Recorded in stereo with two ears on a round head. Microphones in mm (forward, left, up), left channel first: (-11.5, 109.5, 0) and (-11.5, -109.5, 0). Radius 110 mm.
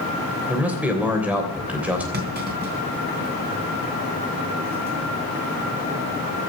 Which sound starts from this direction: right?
A clunk, at 2.1 s.